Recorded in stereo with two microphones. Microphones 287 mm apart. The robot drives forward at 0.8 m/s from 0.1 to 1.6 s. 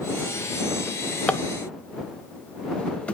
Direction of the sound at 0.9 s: 5° left (ahead or behind).